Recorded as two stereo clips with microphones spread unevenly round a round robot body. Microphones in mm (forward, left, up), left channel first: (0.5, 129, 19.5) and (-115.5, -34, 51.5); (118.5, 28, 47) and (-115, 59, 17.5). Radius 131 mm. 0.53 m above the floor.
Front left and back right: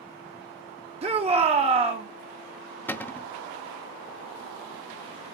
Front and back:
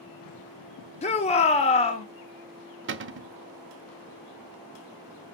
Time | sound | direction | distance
1.0 | a shout | 65° right | 1.0 m
2.9 | a cupboard door | 135° left | 0.8 m